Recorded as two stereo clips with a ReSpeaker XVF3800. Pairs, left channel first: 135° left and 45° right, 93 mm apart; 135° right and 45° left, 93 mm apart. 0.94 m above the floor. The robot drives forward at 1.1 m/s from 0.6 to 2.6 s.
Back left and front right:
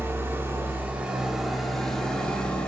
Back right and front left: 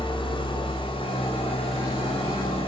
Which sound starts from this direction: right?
An engine running, at 0.0 s.